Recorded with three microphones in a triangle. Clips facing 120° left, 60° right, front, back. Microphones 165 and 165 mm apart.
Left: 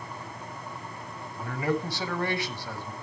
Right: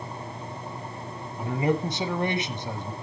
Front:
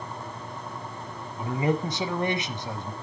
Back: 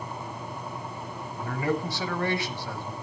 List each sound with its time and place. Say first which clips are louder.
1.4 s a man speaking: right 4 dB, front 2 dB; 30° right, 1.1 m